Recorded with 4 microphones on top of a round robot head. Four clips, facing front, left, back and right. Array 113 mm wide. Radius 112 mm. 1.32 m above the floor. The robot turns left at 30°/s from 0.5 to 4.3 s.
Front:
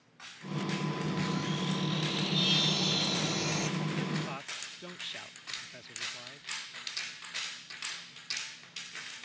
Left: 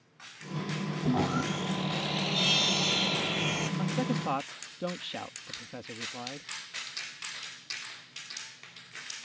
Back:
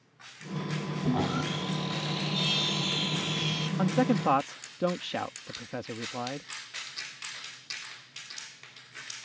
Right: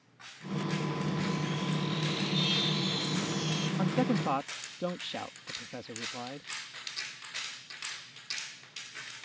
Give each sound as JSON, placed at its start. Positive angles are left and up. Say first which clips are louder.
{"t": 1.0, "sound": "sawing", "louder": "left 5 dB, back 5 dB", "azimuth_deg": 135}
{"t": 3.8, "sound": "a man speaking", "louder": "right 4 dB, back 9 dB", "azimuth_deg": -155}